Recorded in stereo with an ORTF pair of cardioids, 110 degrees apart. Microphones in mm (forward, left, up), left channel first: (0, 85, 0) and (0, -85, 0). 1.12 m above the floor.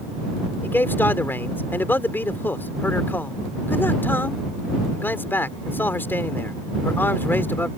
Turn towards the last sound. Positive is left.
turn(degrees=10)